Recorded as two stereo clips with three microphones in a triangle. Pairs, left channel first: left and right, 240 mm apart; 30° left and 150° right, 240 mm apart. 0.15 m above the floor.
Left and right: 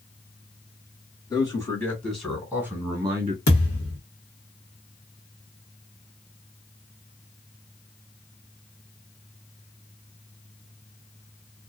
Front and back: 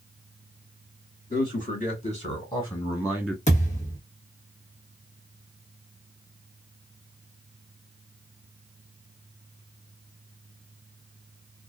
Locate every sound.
1.3 s a man speaking: 30° left, 2.0 m; by 3.4 s 45° right, 1.9 m
3.5 s a thud: 85° left, 1.3 m